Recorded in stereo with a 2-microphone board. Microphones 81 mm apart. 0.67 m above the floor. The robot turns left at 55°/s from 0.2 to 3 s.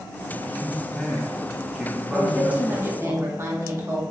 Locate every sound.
0.3 s a man speaking: 20° left (ahead or behind), 1.0 m; by 3.1 s 25° right (ahead or behind), 1.0 m
2.1 s a woman speaking: 5° right, 0.9 m; by 4.0 s 55° right, 0.9 m